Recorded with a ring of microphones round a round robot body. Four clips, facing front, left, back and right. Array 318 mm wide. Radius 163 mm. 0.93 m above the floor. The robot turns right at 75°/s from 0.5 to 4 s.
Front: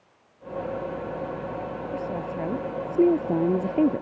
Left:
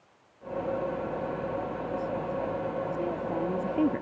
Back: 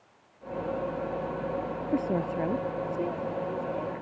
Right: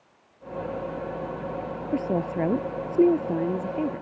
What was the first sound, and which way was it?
A woman speaking, 130° right.